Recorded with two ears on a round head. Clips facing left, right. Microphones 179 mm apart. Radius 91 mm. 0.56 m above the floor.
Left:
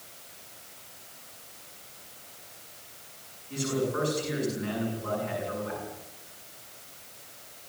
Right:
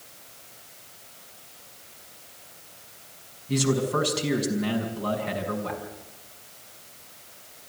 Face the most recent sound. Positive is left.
turn(degrees=-70)  # may be behind; listen again after turning